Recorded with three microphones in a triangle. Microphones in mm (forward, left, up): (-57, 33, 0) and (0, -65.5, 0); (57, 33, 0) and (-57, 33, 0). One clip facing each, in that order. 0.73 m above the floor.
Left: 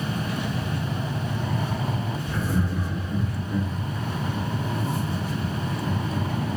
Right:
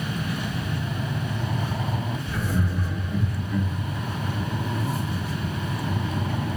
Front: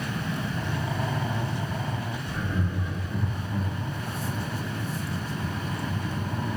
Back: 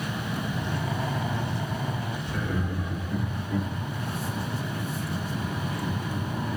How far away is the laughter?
About 1.8 m.